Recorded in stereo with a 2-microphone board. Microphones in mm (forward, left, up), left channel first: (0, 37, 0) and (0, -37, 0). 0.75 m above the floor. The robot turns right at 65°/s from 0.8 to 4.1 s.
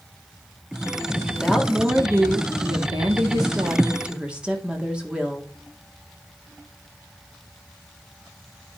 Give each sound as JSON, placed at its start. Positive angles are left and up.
{"t": 1.3, "sound": "a woman speaking", "azimuth_deg": 160, "distance_m": 1.9}